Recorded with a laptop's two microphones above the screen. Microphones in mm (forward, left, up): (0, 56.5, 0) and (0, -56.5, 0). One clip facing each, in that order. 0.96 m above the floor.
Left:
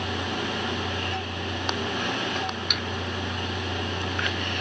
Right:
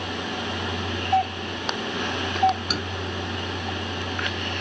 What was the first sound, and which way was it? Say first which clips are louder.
A doorbell: right 8 dB; 60° right (ahead or behind).